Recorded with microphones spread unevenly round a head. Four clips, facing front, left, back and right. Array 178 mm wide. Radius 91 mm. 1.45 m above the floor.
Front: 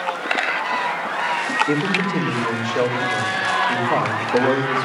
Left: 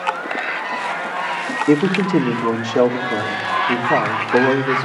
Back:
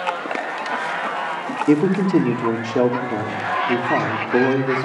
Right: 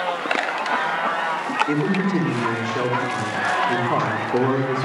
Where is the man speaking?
135° left, 3.5 m.